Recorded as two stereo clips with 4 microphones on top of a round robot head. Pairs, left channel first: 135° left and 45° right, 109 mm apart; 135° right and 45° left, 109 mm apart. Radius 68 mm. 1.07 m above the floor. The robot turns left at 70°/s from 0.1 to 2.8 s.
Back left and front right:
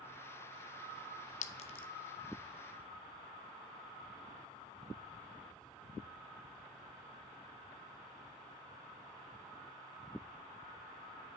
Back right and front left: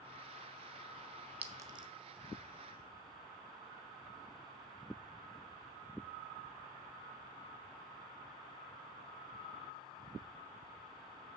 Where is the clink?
120° left, 0.5 m; by 1.9 s 85° left, 0.5 m.